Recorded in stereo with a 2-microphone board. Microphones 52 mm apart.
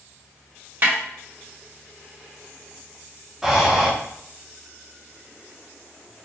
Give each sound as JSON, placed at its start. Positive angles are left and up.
{"t": 0.8, "sound": "a snare drum", "side_deg": -45, "distance_m": 1.7}
{"t": 3.4, "sound": "breathing", "side_deg": -10, "distance_m": 0.8}